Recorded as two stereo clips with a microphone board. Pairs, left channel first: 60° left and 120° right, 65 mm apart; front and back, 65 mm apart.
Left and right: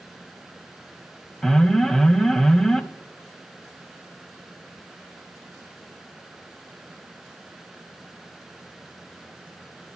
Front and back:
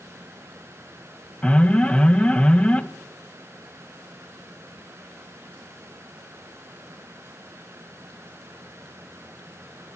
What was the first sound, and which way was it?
An alarm, 10° right.